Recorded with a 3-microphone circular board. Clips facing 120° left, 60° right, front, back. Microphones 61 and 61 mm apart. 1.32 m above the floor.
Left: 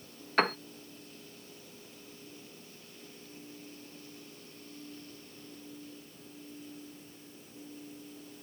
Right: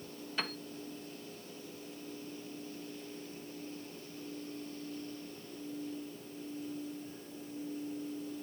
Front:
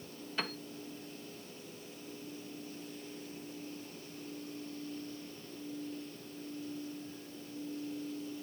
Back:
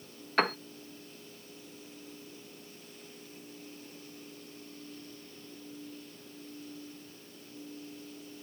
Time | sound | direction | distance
0.4 | a piano | 150° left | ?